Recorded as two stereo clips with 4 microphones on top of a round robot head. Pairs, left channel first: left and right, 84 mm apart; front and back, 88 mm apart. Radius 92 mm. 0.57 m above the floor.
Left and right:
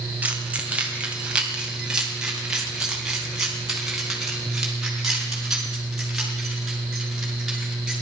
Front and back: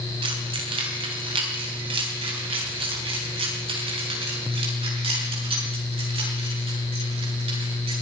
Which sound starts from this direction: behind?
Keys jangling, at 0.2 s.